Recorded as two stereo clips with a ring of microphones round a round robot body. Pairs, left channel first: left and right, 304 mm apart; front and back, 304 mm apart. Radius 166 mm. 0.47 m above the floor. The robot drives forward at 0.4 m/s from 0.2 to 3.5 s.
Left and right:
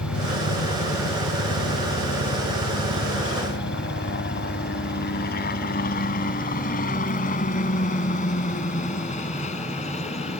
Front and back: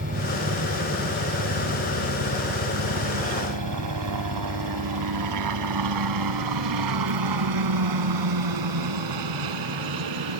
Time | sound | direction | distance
0.0 | a helicopter | 125° left | ?